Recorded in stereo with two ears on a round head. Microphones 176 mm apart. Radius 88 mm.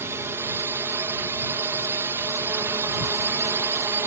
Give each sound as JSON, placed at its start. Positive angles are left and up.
{"t": 0.0, "sound": "a drone", "side_deg": -15}